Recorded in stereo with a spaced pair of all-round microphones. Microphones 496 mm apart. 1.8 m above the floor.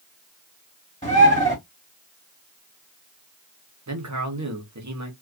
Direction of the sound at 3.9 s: 35° right (ahead or behind).